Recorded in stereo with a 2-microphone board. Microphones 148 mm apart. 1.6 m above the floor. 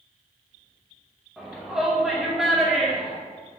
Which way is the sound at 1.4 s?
Centre (ahead or behind).